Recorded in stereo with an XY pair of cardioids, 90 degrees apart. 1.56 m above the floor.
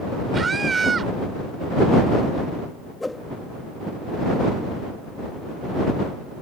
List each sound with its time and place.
0.3 s a scream: 40° right
3.0 s a whoosh: 15° left